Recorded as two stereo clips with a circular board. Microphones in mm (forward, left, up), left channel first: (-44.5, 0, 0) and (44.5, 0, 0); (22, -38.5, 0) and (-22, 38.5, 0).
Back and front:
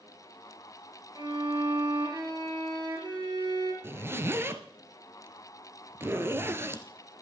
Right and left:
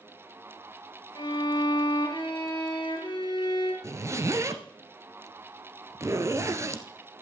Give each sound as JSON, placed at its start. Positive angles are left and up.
{"t": 1.1, "sound": "a violin", "azimuth_deg": -30, "distance_m": 3.0}
{"t": 3.8, "sound": "a zipper", "azimuth_deg": 65, "distance_m": 1.0}